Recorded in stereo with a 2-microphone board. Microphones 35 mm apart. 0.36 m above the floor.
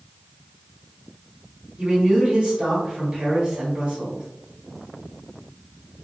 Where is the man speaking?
30° right (ahead or behind), 1.6 m.